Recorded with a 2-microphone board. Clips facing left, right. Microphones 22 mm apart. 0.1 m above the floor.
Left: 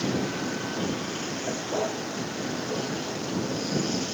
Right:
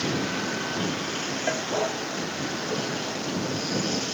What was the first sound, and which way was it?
A vehicle, 20° right (ahead or behind).